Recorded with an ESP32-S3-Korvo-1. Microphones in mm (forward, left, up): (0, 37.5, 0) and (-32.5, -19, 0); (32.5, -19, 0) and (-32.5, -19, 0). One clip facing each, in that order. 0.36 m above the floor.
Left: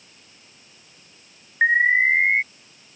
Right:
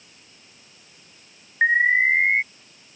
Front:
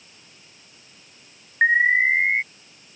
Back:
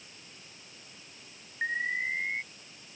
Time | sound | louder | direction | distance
1.6 | an alarm | left 1 dB, front 14 dB | 25° right | ?